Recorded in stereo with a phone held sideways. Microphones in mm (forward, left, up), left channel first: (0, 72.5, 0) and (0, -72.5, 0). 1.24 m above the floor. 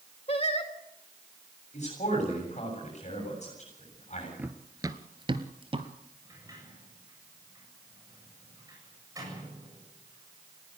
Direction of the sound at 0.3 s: 45° left (ahead or behind).